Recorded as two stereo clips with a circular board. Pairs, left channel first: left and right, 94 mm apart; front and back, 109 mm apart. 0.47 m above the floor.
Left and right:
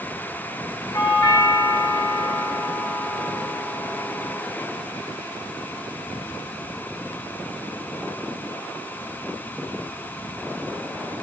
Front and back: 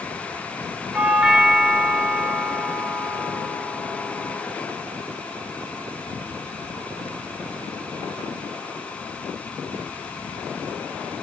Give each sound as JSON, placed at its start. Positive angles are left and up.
{"t": 0.9, "sound": "a doorbell", "azimuth_deg": 100, "distance_m": 1.6}